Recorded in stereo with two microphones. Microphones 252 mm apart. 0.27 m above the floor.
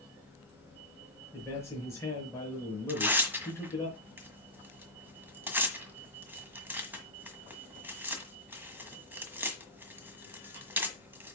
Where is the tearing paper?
10° right (ahead or behind), 1.5 m.